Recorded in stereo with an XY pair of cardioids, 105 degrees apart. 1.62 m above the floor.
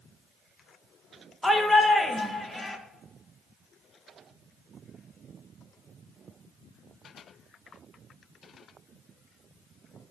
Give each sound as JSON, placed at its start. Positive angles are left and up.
{"t": 1.4, "sound": "a shout", "azimuth_deg": 5, "distance_m": 1.9}